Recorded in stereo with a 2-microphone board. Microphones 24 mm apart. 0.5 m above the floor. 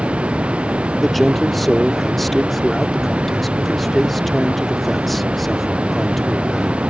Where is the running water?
60° right (ahead or behind).